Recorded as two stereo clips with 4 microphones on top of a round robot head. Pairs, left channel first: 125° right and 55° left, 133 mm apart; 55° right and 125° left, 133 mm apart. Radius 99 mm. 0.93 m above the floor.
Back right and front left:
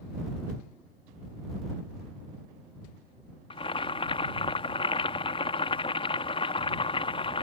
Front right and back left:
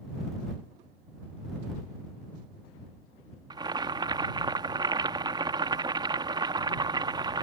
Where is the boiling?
175° right.